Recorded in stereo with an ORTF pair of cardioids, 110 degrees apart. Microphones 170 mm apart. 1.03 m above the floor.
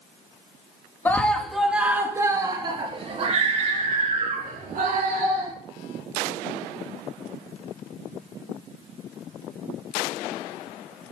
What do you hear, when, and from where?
1.1 s a scream: 10° left, 1.6 m; by 5.5 s 60° right, 3 m